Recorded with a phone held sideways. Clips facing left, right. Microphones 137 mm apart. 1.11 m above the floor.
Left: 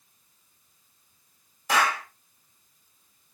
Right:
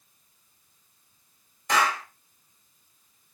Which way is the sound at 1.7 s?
5° left (ahead or behind).